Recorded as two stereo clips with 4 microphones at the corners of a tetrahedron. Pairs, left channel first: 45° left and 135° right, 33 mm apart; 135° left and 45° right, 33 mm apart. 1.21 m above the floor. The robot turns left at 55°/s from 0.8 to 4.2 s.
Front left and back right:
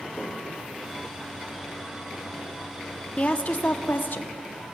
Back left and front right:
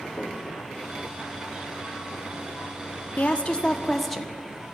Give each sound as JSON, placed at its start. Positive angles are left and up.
{"t": 0.2, "sound": "knocking", "azimuth_deg": 100, "distance_m": 1.3}
{"t": 3.2, "sound": "a woman speaking", "azimuth_deg": 95, "distance_m": 0.5}